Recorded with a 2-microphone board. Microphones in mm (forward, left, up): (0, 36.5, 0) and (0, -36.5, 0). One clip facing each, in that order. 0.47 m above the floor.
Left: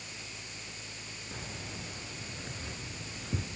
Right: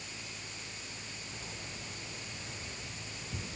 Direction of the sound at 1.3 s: 85° left.